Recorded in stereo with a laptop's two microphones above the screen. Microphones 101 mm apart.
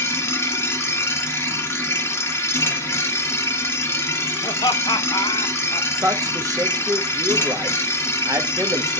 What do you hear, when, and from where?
0.0 s a machine running: 25° left (ahead or behind), 1.2 m
4.4 s laughter: 50° left (ahead or behind), 1.0 m
6.0 s a man speaking: 35° right (ahead or behind), 1.4 m